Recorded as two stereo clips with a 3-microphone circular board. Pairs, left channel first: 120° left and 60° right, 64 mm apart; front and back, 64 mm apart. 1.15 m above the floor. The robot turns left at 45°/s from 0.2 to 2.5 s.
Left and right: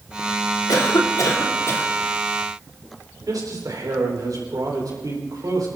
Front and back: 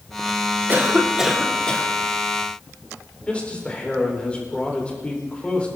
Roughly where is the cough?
Behind left.